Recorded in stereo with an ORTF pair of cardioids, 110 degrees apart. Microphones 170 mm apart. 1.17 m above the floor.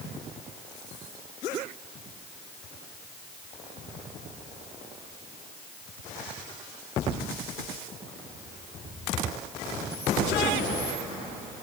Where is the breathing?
I don't hear breathing.